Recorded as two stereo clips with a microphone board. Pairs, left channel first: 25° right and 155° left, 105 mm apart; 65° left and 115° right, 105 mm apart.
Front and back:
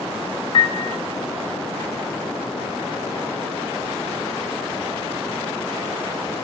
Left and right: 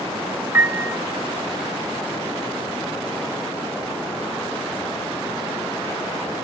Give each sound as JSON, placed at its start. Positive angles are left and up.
{"t": 0.5, "sound": "a piano", "azimuth_deg": -50, "distance_m": 0.7}